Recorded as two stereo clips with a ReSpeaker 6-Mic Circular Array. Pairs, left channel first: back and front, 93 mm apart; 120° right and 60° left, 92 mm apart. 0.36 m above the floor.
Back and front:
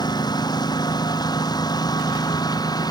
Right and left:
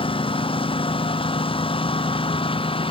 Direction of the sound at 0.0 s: 140° right.